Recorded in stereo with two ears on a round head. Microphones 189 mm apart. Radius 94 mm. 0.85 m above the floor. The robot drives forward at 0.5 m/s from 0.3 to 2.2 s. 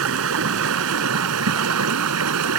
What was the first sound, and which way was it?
Running water, 75° right (ahead or behind).